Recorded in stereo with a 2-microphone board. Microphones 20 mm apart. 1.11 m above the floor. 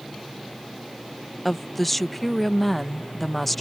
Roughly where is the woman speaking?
Centre.